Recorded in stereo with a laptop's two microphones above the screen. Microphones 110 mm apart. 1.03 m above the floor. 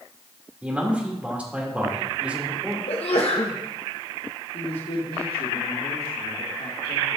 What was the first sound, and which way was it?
A man speaking, 10° right (ahead or behind).